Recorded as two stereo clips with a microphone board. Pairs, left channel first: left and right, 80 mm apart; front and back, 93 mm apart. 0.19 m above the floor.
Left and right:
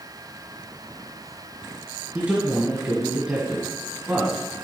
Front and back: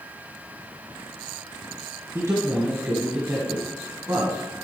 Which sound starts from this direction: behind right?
A man speaking, at 2.1 s.